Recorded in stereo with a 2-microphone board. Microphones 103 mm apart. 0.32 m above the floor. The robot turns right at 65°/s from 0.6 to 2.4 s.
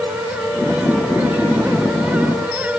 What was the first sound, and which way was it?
Only background noise.